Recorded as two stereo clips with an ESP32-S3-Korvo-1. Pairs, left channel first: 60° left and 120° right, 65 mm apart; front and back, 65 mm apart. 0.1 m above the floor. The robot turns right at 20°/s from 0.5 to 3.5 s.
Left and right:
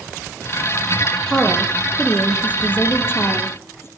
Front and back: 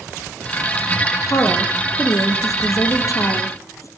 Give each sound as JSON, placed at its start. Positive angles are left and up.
{"t": 1.3, "sound": "a woman speaking", "azimuth_deg": -25, "distance_m": 2.5}